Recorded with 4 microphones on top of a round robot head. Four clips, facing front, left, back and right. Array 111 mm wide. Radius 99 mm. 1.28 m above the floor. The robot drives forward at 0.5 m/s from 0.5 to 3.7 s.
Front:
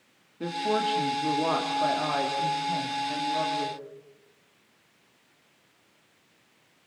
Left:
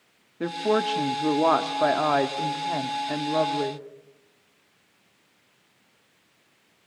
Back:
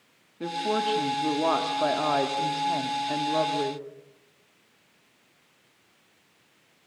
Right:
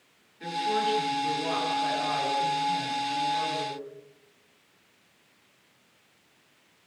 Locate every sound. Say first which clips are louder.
0.4 s a woman speaking: left 4 dB, even; 90° left, 2.5 m; by 3.9 s 125° left, 3 m